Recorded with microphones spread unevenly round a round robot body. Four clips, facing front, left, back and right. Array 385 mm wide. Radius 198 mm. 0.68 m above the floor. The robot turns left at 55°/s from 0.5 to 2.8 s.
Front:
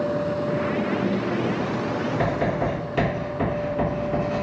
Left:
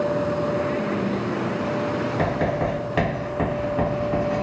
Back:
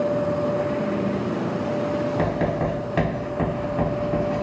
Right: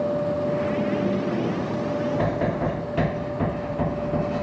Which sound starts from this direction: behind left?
Writing, at 2.2 s.